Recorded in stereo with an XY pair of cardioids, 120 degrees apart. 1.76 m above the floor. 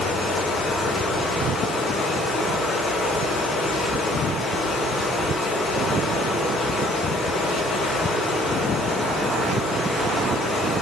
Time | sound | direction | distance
0.0 | running water | 50° left | 3.5 m